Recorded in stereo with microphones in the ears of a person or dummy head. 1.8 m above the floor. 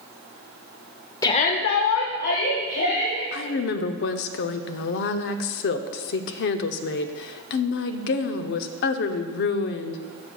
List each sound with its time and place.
1.2 s a shout: 20° left (ahead or behind), 0.7 m; by 3.2 s 50° left (ahead or behind), 2.5 m
3.3 s a woman speaking: 60° left (ahead or behind), 0.6 m